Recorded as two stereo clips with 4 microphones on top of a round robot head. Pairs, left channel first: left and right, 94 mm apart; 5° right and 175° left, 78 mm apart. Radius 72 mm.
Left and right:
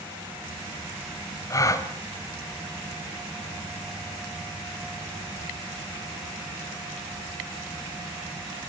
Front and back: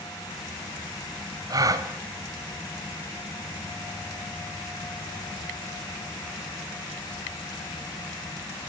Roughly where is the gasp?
Behind left.